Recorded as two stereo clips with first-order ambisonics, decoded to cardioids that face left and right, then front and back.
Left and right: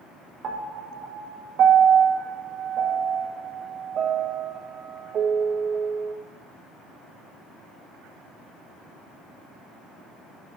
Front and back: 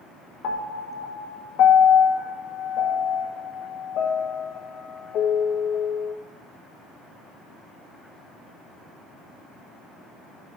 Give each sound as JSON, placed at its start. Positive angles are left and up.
{"t": 0.4, "sound": "a piano", "azimuth_deg": -35, "distance_m": 1.0}